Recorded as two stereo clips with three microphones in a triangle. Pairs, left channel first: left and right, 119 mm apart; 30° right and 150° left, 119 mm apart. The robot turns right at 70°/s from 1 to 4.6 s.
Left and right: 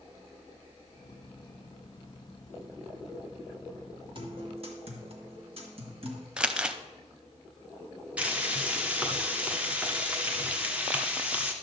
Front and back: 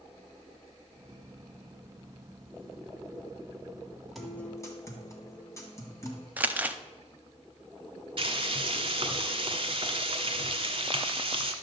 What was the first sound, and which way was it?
A guitar, 120° right.